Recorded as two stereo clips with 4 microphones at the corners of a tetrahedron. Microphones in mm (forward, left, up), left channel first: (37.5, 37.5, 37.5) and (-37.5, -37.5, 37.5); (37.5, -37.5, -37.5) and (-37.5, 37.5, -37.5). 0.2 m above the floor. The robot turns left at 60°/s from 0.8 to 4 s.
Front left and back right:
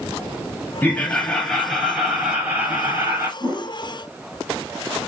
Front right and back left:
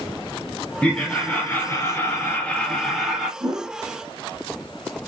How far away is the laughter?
About 1.1 m.